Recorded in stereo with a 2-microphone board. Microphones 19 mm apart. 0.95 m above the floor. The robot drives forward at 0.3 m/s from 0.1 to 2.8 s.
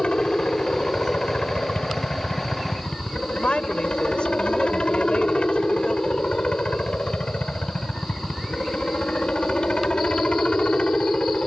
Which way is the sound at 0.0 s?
60° left (ahead or behind).